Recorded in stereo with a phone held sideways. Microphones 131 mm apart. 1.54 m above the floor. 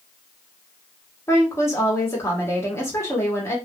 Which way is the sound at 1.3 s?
20° left (ahead or behind).